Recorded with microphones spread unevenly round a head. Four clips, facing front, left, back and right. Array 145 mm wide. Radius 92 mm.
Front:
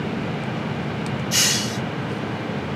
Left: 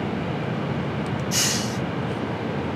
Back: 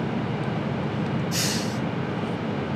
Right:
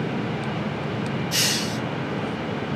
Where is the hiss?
10° right, 4 m.